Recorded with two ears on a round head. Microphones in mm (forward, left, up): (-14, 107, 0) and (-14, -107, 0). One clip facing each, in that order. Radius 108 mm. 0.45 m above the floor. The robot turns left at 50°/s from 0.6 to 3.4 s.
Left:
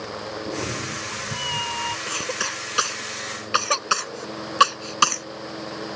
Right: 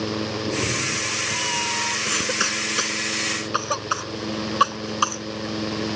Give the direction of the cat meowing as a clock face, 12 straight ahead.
5 o'clock.